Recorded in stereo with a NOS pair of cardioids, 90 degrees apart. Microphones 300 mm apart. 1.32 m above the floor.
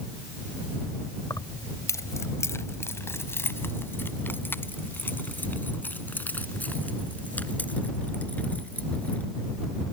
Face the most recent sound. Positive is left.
turn(degrees=5)